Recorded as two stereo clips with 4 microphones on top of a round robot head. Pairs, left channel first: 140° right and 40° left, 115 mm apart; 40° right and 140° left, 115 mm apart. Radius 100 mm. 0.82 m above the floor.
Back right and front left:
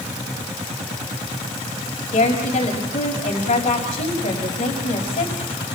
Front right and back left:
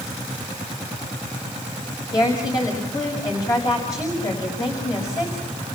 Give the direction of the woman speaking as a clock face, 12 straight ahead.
3 o'clock.